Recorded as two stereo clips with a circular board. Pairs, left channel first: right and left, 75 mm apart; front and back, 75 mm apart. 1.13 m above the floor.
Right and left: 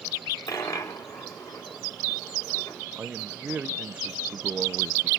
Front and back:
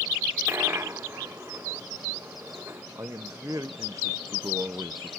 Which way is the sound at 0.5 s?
120° right.